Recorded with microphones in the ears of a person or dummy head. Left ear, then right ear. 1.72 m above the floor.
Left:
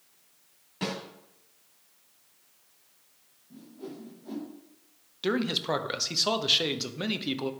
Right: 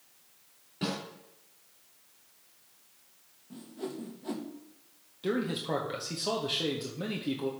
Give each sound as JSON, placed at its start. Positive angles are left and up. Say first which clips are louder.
{"t": 0.8, "sound": "a snare drum", "louder": "left 1 dB", "side_deg": 35, "distance_m": 2.0}
{"t": 3.5, "sound": "a whoosh", "louder": "right 4 dB", "side_deg": -45, "distance_m": 1.0}
{"t": 5.2, "sound": "a man speaking", "louder": "left 4 dB", "side_deg": 45, "distance_m": 0.9}